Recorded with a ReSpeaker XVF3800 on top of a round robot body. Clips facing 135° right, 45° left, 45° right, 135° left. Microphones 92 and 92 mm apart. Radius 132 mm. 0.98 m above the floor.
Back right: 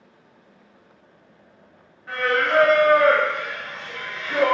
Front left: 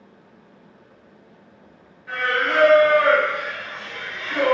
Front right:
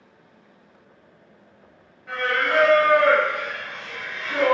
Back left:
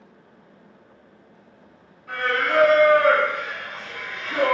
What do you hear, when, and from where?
2.1 s singing: 80° right, 1.8 m